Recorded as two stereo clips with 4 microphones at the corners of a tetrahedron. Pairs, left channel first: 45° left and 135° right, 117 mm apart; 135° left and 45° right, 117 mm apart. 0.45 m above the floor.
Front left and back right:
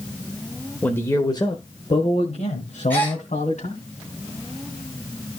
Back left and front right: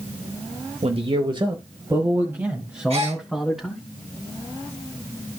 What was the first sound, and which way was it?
A man speaking, 30° right.